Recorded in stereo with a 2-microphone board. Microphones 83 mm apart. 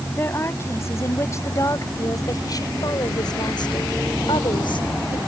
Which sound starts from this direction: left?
A woman speaking, at 0.2 s.